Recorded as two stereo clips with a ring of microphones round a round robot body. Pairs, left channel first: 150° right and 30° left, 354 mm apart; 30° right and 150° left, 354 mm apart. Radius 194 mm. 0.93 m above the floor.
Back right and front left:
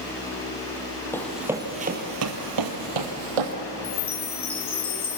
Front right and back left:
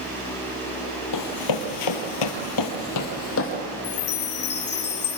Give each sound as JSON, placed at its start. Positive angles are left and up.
{"t": 1.1, "sound": "running footsteps", "azimuth_deg": -65, "distance_m": 2.0}
{"t": 3.8, "sound": "a chime", "azimuth_deg": -85, "distance_m": 2.0}